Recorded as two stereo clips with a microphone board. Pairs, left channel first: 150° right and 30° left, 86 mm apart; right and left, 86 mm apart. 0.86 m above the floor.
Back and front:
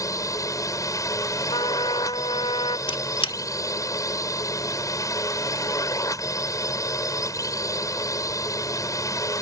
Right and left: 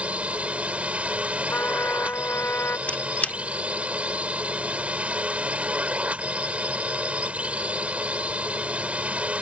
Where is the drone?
165° left.